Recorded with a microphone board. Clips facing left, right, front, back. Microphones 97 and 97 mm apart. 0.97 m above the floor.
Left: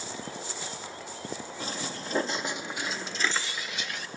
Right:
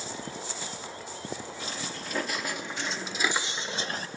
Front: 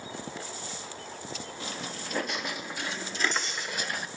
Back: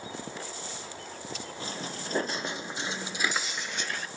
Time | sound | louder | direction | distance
1.6 | footsteps | left 1 dB, back 2 dB | 130° left | 1.7 m